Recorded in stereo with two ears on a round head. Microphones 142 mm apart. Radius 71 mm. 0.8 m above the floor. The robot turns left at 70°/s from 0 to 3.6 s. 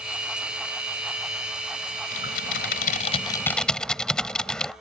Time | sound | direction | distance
2.1 | typing on a keyboard | 110° left | ?